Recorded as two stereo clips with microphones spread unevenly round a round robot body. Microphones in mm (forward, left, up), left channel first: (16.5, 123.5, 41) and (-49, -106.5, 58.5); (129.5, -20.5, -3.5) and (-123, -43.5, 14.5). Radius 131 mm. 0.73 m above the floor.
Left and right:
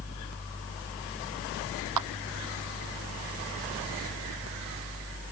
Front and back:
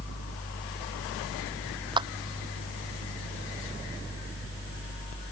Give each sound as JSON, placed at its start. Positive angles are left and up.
{"t": 2.0, "sound": "a clap", "azimuth_deg": -100}